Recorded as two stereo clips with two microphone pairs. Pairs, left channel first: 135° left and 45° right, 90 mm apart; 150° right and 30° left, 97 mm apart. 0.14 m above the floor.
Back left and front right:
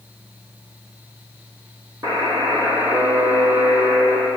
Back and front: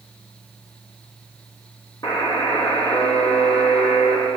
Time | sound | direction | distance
2.0 | a buzzer | 100° right | 1.5 m